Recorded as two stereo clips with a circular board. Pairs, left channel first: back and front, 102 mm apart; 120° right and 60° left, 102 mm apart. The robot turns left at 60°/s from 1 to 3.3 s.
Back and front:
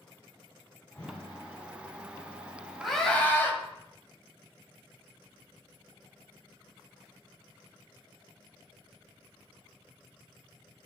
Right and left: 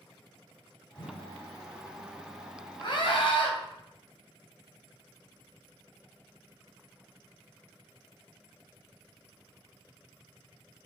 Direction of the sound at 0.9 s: 125° right.